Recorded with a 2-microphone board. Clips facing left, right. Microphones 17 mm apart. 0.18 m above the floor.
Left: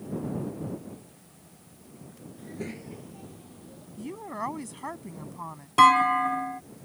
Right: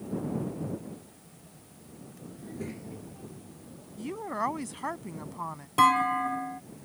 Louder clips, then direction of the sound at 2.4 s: Left 2 dB; 15° left (ahead or behind).